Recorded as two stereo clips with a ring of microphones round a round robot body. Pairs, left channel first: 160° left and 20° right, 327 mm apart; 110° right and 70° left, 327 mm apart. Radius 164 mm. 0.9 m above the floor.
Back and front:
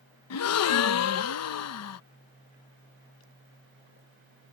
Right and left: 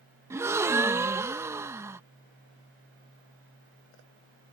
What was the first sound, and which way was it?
A gasp, 145° left.